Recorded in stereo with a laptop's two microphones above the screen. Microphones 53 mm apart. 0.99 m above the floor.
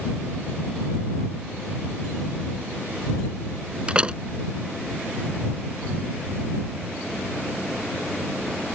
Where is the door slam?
25° right (ahead or behind).